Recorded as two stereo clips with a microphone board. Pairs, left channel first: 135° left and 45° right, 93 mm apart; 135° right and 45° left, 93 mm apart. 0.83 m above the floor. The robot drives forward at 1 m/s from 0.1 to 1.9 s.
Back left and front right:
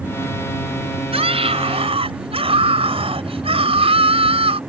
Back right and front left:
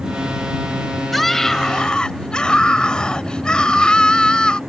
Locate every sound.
1.1 s a scream: 45° right; by 4.6 s 55° right